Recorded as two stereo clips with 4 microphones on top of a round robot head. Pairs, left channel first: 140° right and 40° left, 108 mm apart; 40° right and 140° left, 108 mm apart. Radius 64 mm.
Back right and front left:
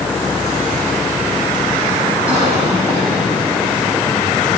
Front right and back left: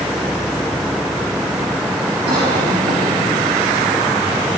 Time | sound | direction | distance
2.3 | a cough | 115° left | 5.5 m